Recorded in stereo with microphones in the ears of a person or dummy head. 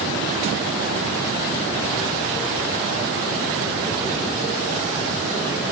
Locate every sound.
Only background noise.